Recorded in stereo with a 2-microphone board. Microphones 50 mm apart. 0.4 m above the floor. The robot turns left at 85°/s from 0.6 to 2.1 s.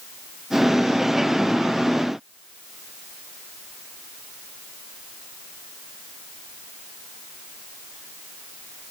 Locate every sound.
Only background noise.